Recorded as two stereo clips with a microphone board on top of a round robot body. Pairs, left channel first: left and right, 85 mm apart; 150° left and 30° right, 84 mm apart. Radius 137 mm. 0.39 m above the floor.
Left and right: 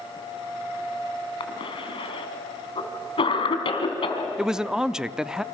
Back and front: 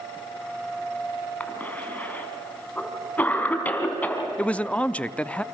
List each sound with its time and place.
1.4 s a cough: 80° left, 4.5 m
4.4 s a man speaking: 160° right, 0.8 m